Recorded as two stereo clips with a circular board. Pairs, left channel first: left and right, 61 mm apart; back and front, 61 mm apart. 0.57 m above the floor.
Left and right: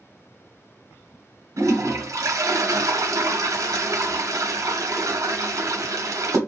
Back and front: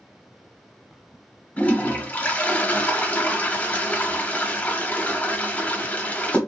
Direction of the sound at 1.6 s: 115° right.